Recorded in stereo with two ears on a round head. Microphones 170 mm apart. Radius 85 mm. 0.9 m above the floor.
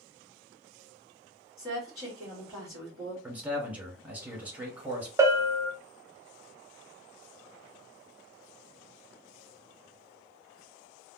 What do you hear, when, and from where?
1.6 s a woman speaking: 10° left (ahead or behind), 1.6 m
3.2 s a man speaking: 10° right (ahead or behind), 1.3 m
5.2 s a bell: 15° right (ahead or behind), 0.6 m